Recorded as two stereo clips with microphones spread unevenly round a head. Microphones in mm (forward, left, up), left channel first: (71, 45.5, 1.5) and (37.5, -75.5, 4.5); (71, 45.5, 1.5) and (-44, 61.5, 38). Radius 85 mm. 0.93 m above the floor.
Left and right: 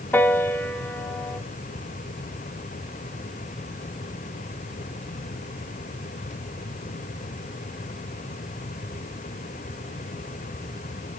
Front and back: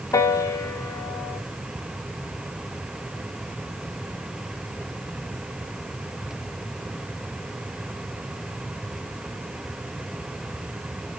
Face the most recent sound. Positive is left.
turn(degrees=5)